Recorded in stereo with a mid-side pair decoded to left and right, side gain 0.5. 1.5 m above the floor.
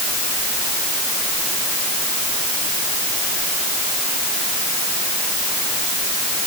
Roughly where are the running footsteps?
I don't hear running footsteps.